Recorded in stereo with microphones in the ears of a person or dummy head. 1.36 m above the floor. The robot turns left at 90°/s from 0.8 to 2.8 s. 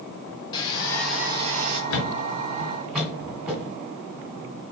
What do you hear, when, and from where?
0.5 s sawing: 20° left, 1.4 m; by 1.8 s 70° right, 1.4 m
1.9 s a thud: 60° left (ahead or behind), 2.0 m; by 3.8 s 10° right (ahead or behind), 2.0 m